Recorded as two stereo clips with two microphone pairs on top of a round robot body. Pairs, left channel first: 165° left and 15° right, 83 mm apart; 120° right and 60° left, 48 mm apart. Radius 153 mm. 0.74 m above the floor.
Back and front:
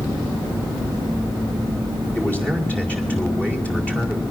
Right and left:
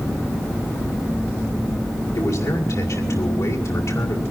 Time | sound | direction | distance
2.1 | a man speaking | 120° right | 5 m